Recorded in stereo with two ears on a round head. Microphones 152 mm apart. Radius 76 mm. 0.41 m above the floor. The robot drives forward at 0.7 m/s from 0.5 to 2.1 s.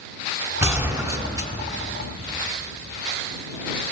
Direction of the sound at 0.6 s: 15° right (ahead or behind).